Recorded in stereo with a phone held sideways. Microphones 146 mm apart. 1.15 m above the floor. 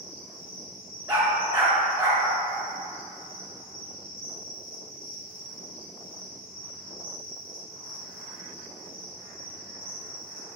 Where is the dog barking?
20° right (ahead or behind), 1.0 m.